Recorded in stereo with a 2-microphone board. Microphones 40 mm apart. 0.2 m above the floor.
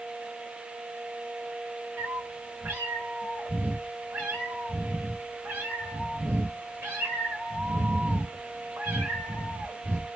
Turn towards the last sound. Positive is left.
turn(degrees=-65)  # may be behind; listen again after turning